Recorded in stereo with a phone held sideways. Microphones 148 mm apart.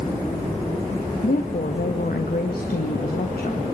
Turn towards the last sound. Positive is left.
turn(degrees=85)